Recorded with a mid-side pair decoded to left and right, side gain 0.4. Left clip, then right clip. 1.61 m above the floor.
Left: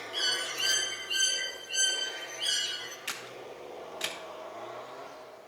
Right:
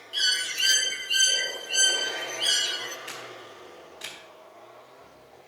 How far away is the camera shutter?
About 2.5 m.